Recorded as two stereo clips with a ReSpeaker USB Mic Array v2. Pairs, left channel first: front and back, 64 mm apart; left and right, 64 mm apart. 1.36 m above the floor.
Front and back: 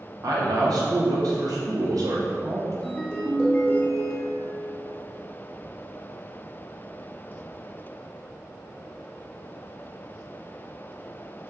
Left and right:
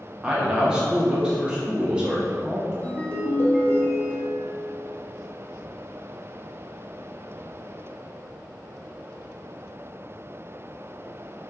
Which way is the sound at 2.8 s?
55° left.